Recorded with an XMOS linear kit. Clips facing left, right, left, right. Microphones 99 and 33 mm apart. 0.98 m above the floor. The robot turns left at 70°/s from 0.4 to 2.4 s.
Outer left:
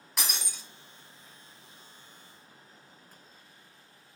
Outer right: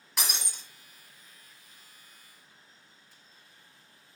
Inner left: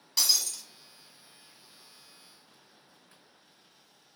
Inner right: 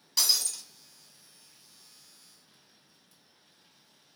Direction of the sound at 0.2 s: Centre (ahead or behind).